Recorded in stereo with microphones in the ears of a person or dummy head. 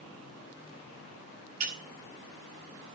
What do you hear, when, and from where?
1.6 s breaking glass: 45° right (ahead or behind), 9.5 m